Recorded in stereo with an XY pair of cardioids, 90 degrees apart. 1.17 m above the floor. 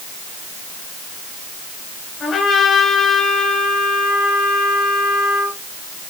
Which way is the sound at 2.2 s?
65° left.